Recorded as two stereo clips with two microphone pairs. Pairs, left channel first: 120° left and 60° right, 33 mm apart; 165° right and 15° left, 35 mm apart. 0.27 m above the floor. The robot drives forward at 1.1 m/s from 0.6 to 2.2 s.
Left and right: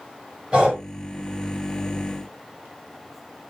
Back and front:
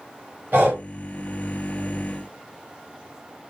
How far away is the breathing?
About 3 m.